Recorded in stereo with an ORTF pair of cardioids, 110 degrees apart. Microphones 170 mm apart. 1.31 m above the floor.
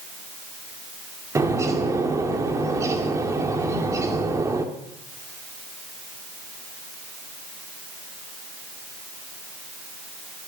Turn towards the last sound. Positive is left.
turn(degrees=-20)